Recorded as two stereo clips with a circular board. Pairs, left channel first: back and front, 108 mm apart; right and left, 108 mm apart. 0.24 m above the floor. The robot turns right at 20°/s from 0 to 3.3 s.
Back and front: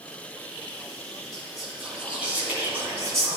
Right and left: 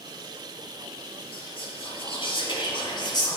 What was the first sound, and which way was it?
Whispering, 95° right.